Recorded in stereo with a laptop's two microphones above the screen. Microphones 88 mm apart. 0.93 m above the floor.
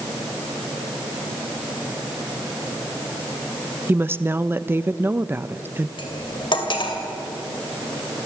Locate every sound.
3.9 s a woman speaking: 25° right (ahead or behind), 0.5 m
6.0 s cutlery clinking: 65° left (ahead or behind), 2 m